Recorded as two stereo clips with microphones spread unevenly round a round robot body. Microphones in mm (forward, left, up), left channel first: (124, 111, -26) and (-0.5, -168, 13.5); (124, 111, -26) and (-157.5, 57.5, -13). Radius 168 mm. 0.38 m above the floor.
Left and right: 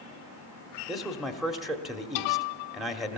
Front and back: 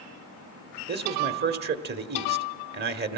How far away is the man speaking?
About 1.4 m.